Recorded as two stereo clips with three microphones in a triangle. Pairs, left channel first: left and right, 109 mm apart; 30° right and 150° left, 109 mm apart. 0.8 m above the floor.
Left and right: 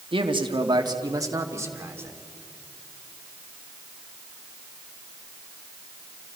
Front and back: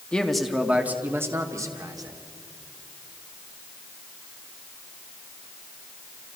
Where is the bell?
I don't hear a bell.